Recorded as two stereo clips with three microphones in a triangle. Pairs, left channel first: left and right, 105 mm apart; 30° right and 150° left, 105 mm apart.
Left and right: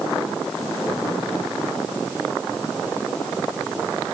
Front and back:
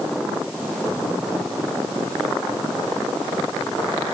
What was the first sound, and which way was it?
Only background noise.